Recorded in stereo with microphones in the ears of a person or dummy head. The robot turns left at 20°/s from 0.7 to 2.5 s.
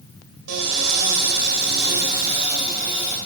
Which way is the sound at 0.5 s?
90° right.